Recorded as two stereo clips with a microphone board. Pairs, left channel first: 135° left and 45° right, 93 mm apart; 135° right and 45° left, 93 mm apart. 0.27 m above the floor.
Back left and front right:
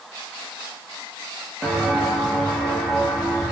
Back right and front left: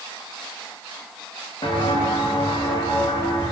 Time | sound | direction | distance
1.6 | footsteps | 130° right | 3 m